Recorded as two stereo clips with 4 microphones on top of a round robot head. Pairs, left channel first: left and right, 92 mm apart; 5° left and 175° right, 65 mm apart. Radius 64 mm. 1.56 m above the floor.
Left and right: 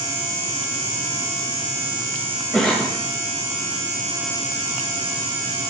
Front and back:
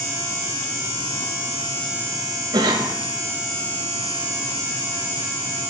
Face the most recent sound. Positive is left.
turn(degrees=175)